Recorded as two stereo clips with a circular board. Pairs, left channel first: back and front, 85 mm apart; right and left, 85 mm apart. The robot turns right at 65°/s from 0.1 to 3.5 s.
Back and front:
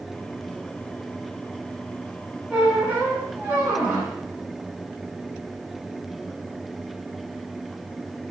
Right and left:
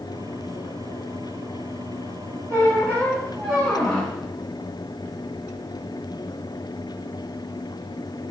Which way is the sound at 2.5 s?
70° right.